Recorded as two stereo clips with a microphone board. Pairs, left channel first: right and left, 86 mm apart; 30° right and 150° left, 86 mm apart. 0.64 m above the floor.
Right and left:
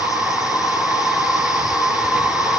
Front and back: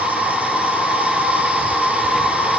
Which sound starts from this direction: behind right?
An insect, at 0.0 s.